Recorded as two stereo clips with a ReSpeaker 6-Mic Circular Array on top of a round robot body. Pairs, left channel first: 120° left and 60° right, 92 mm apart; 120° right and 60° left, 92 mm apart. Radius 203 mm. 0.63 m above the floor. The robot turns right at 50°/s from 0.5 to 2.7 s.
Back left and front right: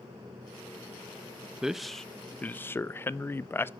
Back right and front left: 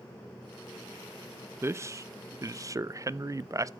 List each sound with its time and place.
1.6 s a man speaking: 20° left, 0.5 m; by 3.7 s 70° left, 0.5 m